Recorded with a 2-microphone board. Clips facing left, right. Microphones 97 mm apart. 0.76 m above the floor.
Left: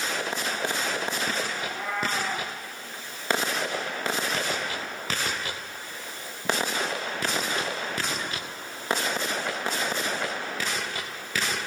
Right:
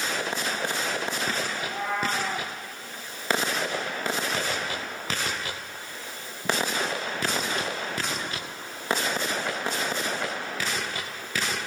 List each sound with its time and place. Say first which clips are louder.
1.6 s a cat meowing: right 2 dB; 50° right (ahead or behind), 9 m